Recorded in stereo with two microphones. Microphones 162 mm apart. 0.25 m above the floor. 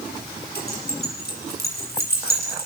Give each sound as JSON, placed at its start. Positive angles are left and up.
{"t": 0.6, "sound": "keys jangling", "side_deg": 75, "distance_m": 7.5}